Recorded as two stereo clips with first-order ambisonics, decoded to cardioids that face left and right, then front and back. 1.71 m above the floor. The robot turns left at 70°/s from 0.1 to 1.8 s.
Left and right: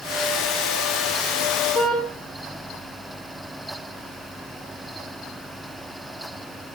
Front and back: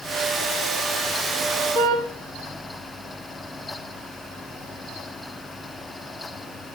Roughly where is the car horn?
Behind right.